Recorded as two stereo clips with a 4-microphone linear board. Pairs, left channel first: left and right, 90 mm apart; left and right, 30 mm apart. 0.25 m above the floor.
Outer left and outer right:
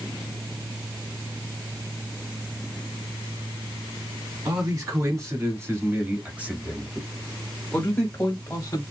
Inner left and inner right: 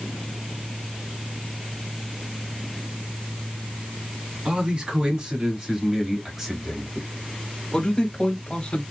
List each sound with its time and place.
4.5 s a man speaking: 35° right (ahead or behind), 2 m; by 8.8 s 30° left (ahead or behind), 1.8 m